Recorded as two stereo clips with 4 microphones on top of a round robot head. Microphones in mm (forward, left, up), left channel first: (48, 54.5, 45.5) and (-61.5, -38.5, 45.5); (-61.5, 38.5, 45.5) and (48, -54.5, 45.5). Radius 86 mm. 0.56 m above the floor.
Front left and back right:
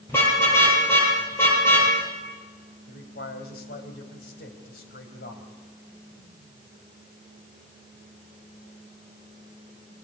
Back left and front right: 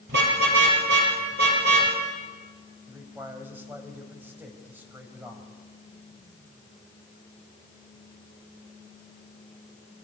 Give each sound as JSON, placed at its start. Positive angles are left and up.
{"t": 0.1, "sound": "a car horn", "azimuth_deg": -35, "distance_m": 9.0}
{"t": 2.9, "sound": "a man speaking", "azimuth_deg": 35, "distance_m": 4.0}